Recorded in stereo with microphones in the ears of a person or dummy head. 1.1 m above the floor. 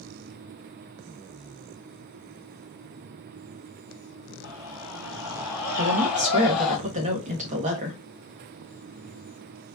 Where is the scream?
25° right (ahead or behind), 3 m; by 6.8 s centre (ahead or behind), 1.8 m.